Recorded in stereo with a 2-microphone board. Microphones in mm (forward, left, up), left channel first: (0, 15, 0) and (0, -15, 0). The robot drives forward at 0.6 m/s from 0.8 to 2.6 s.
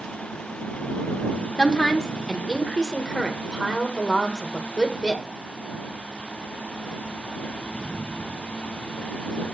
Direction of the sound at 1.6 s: 25° left (ahead or behind).